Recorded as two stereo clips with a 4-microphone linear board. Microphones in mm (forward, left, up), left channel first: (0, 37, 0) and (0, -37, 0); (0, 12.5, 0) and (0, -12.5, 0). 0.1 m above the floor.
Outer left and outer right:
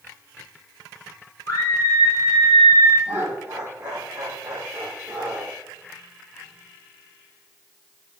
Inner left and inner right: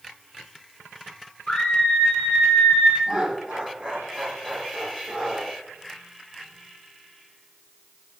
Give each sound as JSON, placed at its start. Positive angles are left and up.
{"t": 1.5, "sound": "a scream", "side_deg": 60, "distance_m": 2.5}
{"t": 3.1, "sound": "laughter", "side_deg": -25, "distance_m": 3.5}